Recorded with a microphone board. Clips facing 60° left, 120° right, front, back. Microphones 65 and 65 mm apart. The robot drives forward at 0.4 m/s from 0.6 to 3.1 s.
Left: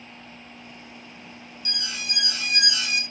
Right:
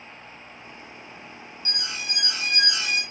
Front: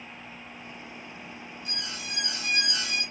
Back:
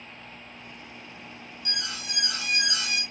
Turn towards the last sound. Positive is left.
turn(degrees=180)